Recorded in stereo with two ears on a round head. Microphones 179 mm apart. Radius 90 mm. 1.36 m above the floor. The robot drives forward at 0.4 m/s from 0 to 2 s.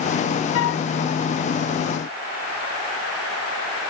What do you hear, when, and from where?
0.5 s a flute: 75° left (ahead or behind), 0.5 m; by 0.8 s 65° left (ahead or behind), 0.6 m